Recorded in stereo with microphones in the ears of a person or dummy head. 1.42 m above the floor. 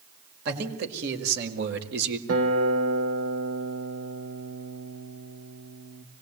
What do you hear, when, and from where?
0.5 s a man speaking: 60° right (ahead or behind), 5 m
2.3 s a guitar: 85° right, 3.5 m